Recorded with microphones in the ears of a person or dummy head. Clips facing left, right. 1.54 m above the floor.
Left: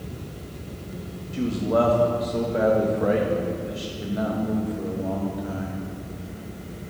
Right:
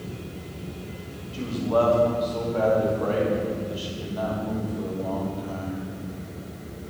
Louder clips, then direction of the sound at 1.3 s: Left 1 dB; 30° left (ahead or behind).